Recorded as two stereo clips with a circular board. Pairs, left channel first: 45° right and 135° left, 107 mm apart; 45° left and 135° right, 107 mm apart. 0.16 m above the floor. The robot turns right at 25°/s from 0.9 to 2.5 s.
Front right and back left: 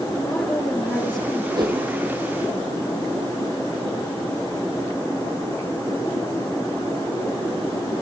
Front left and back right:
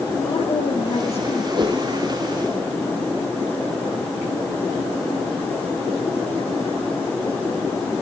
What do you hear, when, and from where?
0.2 s a woman speaking: 35° left, 4 m; by 1.4 s 50° left, 4 m
1.5 s a whoosh: straight behind, 2.5 m; by 1.8 s 175° right, 2.5 m